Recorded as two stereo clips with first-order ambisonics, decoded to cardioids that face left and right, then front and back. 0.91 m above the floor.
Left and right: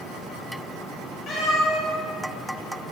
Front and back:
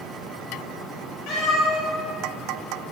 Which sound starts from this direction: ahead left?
A cat meowing, at 1.3 s.